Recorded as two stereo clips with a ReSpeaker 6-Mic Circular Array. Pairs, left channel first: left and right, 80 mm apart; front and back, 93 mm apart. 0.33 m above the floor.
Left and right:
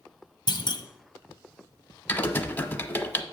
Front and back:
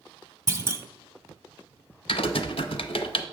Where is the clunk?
115° left, 0.8 m.